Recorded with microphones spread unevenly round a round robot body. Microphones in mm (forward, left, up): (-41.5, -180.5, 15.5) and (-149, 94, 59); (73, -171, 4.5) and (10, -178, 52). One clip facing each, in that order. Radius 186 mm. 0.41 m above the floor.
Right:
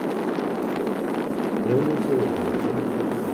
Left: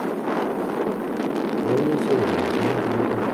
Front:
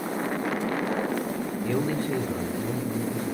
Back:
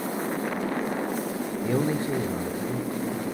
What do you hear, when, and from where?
1.6 s a man speaking: 30° right, 0.8 m; by 3.2 s 95° left, 1.2 m